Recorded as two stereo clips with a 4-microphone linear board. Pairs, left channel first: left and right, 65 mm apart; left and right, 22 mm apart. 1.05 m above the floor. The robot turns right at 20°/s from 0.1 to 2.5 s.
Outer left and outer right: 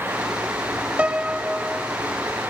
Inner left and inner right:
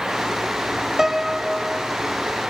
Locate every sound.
1.0 s a piano: 20° right (ahead or behind), 0.6 m; by 1.9 s 5° right (ahead or behind), 0.6 m